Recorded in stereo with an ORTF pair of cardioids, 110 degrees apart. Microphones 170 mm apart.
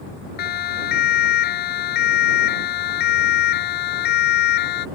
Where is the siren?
70° left; by 4.9 s 75° left.